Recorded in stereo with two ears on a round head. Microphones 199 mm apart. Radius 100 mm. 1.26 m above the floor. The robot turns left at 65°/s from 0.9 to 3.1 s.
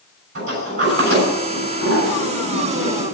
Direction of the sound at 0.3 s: 55° right (ahead or behind).